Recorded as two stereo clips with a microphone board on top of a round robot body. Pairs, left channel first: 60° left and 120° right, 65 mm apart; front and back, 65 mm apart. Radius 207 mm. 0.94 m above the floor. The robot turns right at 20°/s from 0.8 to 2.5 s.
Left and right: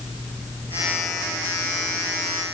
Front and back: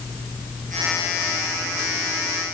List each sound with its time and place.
Only background noise.